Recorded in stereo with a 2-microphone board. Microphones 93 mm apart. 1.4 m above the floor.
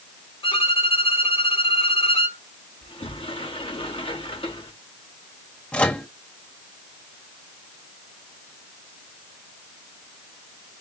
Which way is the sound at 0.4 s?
85° left.